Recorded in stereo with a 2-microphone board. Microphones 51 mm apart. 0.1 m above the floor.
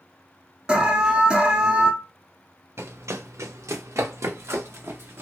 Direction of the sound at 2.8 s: 65° right (ahead or behind).